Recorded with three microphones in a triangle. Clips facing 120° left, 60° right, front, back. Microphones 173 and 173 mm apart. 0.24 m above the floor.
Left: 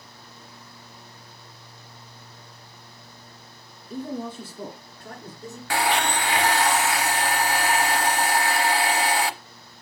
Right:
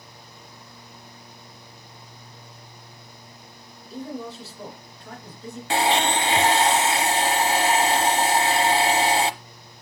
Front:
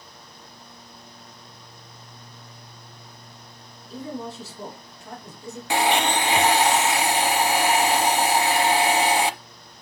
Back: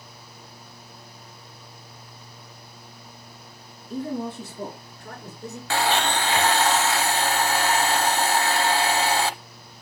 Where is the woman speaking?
145° left, 2.5 m; by 5.6 s 165° left, 3 m.